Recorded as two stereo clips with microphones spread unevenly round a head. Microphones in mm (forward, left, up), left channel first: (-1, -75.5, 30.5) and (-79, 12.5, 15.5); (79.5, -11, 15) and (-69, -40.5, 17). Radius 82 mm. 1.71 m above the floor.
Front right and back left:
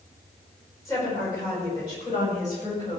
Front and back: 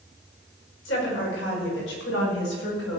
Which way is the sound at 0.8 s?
25° left.